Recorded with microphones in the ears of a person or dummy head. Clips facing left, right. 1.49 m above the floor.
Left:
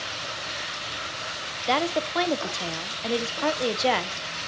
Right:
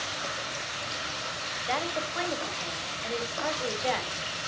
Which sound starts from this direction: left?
A woman speaking, at 1.7 s.